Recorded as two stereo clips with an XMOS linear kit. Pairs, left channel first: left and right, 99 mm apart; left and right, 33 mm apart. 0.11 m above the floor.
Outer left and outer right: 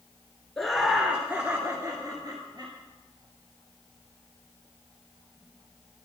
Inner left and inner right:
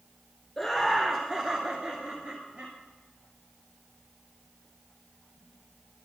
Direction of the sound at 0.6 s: 5° left (ahead or behind).